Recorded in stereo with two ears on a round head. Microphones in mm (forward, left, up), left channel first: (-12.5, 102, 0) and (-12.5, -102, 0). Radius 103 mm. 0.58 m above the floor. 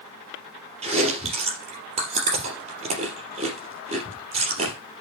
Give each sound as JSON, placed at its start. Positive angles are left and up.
{"t": 0.8, "sound": "chewing", "side_deg": -30, "distance_m": 3.0}